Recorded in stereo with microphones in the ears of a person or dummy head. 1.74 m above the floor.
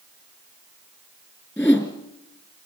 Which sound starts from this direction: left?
A whoosh, at 1.6 s.